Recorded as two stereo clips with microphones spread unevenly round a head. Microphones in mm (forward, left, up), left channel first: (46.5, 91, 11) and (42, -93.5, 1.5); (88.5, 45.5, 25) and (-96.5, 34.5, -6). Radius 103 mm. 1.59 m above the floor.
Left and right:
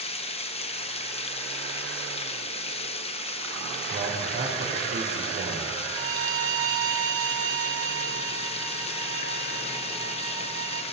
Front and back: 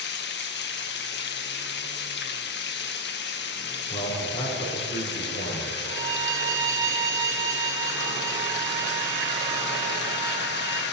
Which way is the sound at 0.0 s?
30° left.